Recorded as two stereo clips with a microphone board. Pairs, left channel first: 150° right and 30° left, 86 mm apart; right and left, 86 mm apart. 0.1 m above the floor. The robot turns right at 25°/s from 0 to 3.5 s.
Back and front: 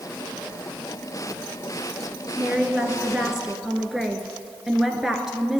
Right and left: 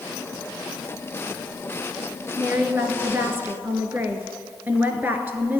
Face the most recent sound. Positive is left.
turn(degrees=110)